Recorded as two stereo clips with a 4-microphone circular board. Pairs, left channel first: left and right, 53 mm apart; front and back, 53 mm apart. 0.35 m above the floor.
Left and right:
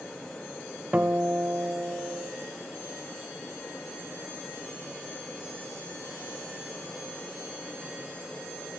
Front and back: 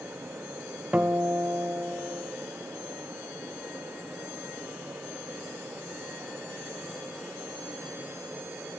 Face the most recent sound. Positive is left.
turn(degrees=-130)